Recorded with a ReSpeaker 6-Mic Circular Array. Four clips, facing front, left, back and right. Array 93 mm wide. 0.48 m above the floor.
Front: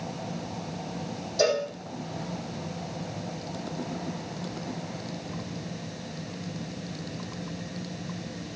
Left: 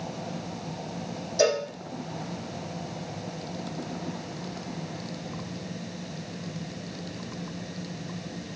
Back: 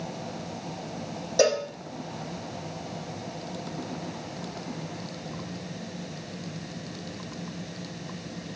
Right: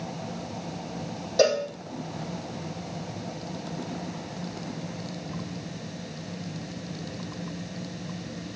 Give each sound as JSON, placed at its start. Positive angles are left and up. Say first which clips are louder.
{"t": 1.4, "sound": "a cowbell", "louder": "right 2 dB, back 2 dB", "azimuth_deg": -135, "distance_m": 6.0}